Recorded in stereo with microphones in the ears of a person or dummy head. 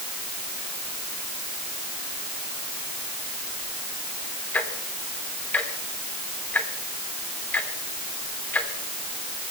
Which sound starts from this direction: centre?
Ticking, at 4.5 s.